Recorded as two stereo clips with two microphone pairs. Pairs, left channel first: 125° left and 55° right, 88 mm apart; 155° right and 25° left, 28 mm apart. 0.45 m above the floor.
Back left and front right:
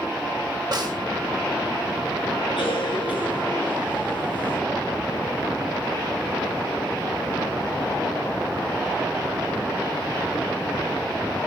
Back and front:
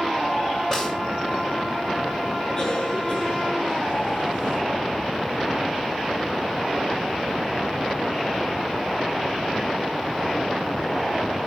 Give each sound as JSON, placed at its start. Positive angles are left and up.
{"t": 0.7, "sound": "a snare drum", "azimuth_deg": -90, "distance_m": 5.0}
{"t": 2.6, "sound": "a cough", "azimuth_deg": 140, "distance_m": 7.0}